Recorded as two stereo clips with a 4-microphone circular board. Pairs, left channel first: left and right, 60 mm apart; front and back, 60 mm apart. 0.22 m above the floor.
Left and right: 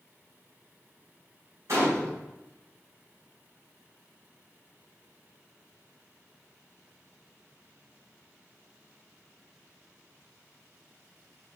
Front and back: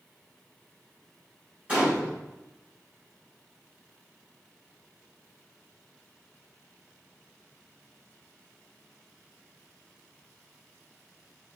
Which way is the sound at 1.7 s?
110° right.